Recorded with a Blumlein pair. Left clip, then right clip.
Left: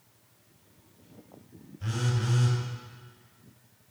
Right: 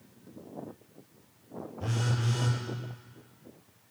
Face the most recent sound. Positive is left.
turn(degrees=5)